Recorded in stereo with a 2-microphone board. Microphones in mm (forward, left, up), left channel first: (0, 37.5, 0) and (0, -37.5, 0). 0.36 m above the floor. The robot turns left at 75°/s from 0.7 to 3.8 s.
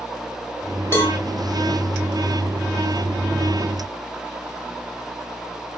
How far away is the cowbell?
About 1.4 m.